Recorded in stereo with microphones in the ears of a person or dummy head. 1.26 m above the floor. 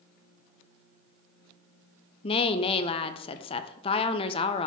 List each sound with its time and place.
2.2 s a woman speaking: 25° left (ahead or behind), 0.6 m